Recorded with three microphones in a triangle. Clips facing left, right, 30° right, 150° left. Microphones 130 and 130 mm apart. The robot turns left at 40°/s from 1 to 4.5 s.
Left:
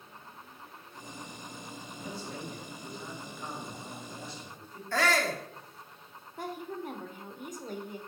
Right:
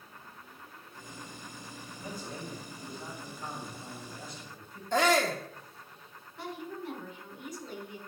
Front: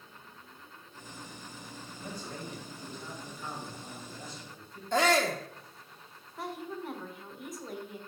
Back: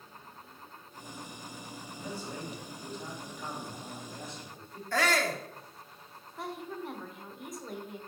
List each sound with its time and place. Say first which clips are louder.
1.9 s a man speaking: even, back 2 dB; 120° right, 3.5 m; by 4.8 s 135° left, 3.5 m
4.9 s a shout: right 3 dB, front 3 dB; 55° right, 0.9 m
6.4 s a woman speaking: left 2 dB, front 1 dB; 60° left, 1.3 m